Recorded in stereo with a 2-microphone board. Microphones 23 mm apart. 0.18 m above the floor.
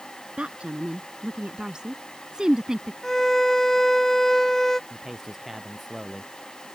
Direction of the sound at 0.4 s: 55° right (ahead or behind).